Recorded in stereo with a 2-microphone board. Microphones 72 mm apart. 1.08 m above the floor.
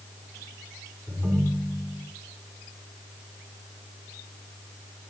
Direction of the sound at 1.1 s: 15° right (ahead or behind).